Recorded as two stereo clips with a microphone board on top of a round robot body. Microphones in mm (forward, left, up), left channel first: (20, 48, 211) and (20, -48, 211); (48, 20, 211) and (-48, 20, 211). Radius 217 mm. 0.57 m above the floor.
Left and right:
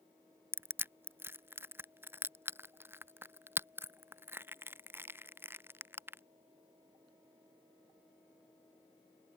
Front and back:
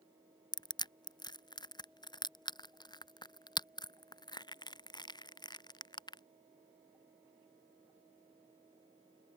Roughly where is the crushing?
Ahead right.